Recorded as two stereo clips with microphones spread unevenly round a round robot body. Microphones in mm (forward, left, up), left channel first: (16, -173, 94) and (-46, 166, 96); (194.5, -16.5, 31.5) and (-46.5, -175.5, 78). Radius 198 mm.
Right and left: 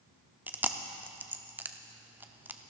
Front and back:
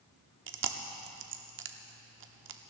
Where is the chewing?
175° right, 1.0 m.